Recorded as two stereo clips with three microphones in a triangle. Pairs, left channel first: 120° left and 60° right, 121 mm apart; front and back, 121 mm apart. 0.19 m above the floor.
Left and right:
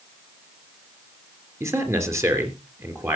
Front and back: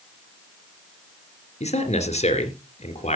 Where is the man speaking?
5° left, 2.5 m.